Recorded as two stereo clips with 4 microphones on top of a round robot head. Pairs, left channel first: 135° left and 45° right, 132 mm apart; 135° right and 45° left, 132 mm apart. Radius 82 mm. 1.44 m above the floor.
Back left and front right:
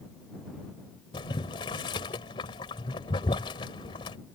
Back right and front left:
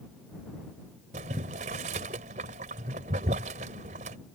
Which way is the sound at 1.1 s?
80° left.